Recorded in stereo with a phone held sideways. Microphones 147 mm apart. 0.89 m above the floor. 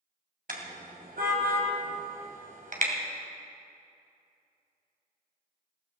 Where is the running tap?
No running tap in this recording.